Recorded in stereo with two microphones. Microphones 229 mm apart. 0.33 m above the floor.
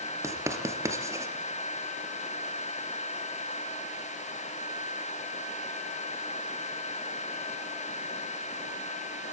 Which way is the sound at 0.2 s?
10° right (ahead or behind).